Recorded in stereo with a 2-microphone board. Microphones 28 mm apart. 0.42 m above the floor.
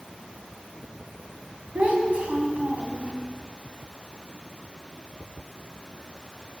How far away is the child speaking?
About 3 m.